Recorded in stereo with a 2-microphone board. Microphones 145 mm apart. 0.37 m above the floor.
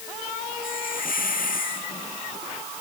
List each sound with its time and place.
0.6 s a hiss: 80° left